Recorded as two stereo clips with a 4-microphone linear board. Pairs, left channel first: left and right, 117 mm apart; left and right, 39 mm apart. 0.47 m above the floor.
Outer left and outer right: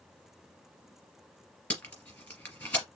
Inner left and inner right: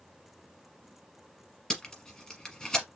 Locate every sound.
1.7 s tape being pulled: 10° left (ahead or behind), 3 m